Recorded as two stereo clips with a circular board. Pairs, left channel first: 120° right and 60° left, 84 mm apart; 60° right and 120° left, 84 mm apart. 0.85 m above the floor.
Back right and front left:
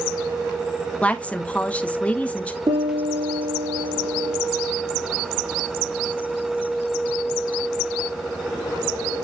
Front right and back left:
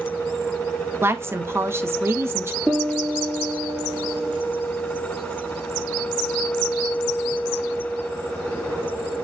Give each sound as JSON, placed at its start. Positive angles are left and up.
{"t": 1.0, "sound": "a woman speaking", "azimuth_deg": 170, "distance_m": 1.3}
{"t": 2.7, "sound": "a piano", "azimuth_deg": 40, "distance_m": 5.5}